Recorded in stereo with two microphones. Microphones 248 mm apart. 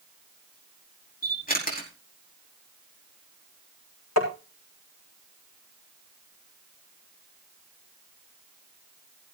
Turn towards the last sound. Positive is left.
turn(degrees=75)  # may be behind; listen again after turning